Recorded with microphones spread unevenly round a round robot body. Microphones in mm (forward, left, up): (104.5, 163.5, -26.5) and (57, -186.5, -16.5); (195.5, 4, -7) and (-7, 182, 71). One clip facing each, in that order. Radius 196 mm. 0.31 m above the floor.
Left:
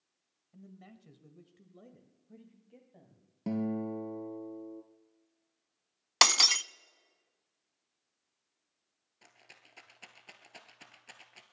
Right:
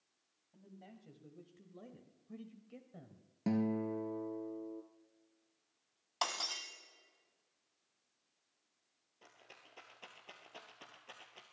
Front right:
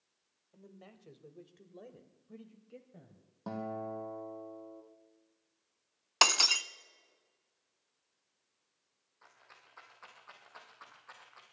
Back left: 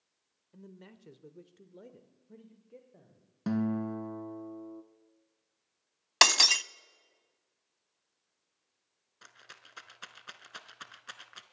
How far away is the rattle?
About 0.8 m.